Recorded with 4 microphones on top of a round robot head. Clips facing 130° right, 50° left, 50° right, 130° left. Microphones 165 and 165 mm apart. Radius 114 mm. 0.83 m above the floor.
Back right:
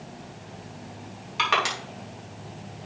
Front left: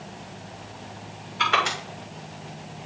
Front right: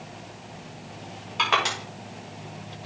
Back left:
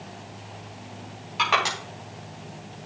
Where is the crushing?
145° right, 4.5 m.